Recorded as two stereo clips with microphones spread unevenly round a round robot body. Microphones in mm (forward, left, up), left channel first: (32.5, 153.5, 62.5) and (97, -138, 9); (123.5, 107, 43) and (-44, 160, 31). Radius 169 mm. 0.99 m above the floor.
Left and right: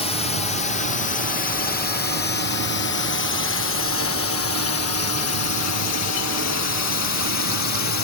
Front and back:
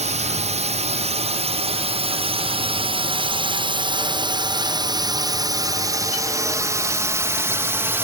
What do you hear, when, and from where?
0.0 s a drone: straight behind; by 8.0 s 90° left